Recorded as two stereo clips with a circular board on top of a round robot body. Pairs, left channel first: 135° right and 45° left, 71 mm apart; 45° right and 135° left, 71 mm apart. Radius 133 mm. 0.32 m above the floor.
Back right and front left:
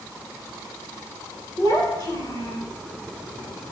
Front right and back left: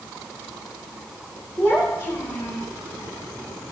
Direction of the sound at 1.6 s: 100° right.